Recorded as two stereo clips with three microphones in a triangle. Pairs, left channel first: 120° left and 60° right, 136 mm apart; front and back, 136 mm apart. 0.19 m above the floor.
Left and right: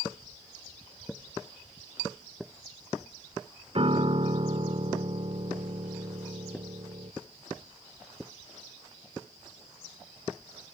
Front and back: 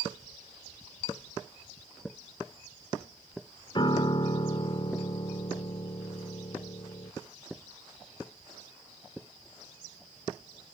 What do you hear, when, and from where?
3.8 s a piano: 40° right